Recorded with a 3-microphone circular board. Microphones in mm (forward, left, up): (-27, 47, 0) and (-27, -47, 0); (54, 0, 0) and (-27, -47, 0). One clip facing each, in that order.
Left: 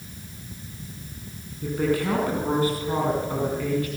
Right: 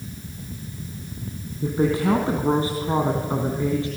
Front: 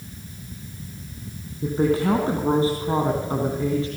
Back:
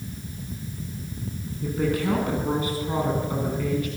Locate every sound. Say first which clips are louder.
1.6 s a woman speaking: right 3 dB, front 4 dB; 25° right, 3.5 m